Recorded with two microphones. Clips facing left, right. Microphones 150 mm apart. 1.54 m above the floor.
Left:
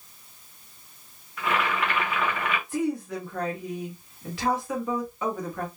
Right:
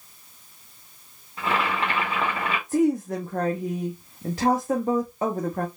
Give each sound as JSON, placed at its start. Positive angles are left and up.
{"t": 1.4, "sound": "boiling", "side_deg": -30, "distance_m": 1.4}
{"t": 2.7, "sound": "a woman speaking", "side_deg": -40, "distance_m": 0.8}